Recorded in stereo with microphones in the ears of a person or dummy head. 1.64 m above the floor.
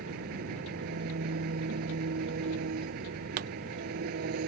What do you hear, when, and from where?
0.0 s an engine running: 50° right (ahead or behind)
3.4 s a pop: 55° right (ahead or behind)